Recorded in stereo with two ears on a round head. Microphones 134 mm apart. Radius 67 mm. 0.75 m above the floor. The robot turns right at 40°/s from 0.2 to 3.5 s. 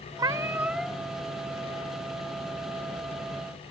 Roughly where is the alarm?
I don't hear an alarm.